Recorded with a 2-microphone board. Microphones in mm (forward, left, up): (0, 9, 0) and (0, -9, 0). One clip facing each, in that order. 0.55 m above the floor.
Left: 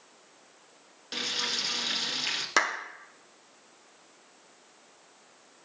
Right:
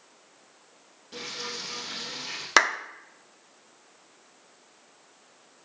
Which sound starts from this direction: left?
Frying, at 1.1 s.